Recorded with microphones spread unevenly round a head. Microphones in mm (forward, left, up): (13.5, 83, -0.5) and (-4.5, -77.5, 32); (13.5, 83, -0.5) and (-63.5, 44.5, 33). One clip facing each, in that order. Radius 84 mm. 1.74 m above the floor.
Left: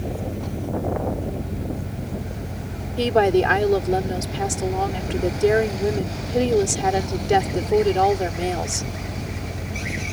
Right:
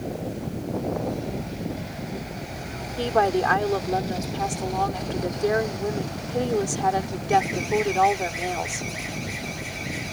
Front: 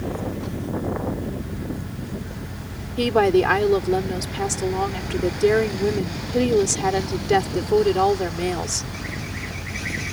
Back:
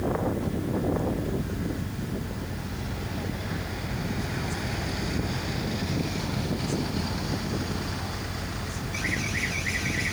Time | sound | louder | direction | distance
0.0 | a fan | left 2 dB, back 1 dB | 120° left | ?
3.0 | a woman speaking | left 4 dB, front 22 dB | 20° left | ?